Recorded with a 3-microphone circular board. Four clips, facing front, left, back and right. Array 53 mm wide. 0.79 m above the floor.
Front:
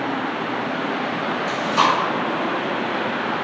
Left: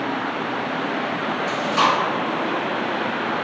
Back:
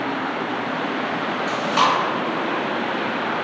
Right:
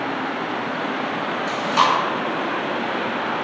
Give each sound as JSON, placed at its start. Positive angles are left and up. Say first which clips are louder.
{"t": 1.5, "sound": "chewing", "louder": "right 1 dB, even", "azimuth_deg": -145, "distance_m": 1.2}